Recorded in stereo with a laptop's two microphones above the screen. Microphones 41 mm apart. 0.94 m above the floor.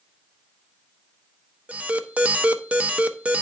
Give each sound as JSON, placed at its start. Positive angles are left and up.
{"t": 1.7, "sound": "an alarm", "side_deg": -35, "distance_m": 0.6}